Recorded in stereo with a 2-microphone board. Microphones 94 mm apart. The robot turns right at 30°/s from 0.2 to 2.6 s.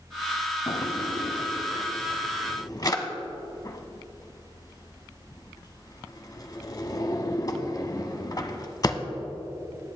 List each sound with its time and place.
0.7 s a drawer: 60° left (ahead or behind), 0.9 m; by 9.0 s 40° left (ahead or behind), 0.9 m